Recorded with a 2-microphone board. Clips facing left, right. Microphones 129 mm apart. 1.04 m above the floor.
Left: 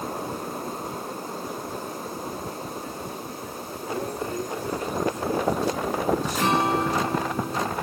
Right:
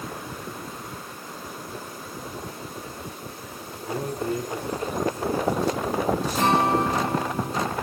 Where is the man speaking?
30° right (ahead or behind), 9 m; by 7.1 s 35° right (ahead or behind), 5.5 m.